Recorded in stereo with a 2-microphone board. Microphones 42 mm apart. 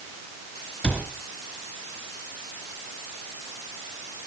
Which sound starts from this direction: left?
A cupboard door, at 0.8 s.